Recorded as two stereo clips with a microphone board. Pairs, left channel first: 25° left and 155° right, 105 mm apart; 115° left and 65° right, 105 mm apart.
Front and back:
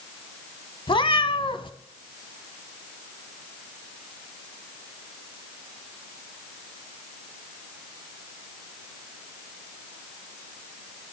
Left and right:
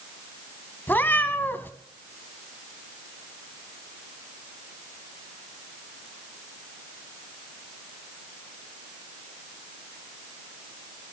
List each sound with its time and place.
0.9 s a cat meowing: 45° left, 1.2 m